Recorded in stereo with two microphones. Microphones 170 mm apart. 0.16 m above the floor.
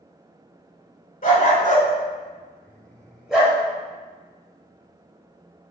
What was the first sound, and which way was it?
A dog barking, 50° left (ahead or behind).